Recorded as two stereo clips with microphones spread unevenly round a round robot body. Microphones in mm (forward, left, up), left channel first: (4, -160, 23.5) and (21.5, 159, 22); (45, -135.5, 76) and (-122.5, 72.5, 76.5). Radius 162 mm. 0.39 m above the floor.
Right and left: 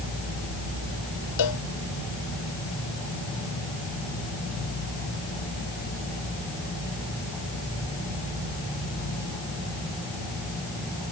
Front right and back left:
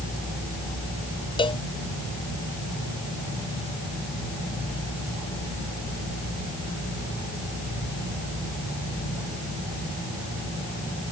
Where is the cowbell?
125° right.